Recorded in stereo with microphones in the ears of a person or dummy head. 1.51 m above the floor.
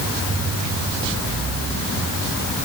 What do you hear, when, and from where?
Only background noise.